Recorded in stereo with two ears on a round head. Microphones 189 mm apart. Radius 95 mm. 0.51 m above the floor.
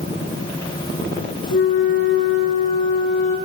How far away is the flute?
About 3.5 m.